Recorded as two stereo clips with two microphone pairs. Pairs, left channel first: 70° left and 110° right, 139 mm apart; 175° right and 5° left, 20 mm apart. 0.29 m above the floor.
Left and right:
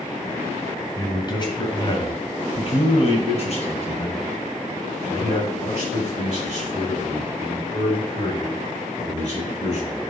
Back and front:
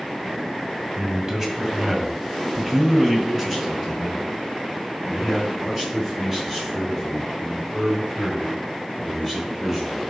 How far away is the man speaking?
About 1.6 m.